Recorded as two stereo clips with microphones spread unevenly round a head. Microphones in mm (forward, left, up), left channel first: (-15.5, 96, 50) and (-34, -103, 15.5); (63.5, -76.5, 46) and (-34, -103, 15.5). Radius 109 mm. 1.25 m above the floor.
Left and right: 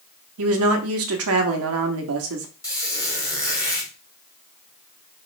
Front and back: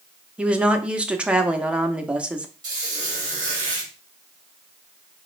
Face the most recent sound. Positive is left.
turn(degrees=130)